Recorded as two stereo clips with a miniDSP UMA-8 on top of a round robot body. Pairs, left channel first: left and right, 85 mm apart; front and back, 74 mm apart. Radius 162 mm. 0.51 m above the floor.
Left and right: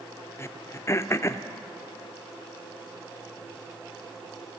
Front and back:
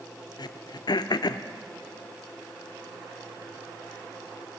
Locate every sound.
0.4 s throat clearing: 30° left, 0.6 m